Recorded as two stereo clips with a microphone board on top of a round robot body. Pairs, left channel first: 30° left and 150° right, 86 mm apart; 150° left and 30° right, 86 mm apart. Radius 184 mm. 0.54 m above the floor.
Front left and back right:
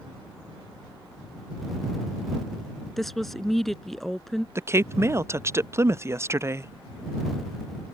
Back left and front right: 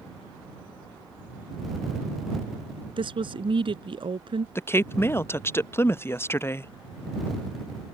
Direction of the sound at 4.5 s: 175° right.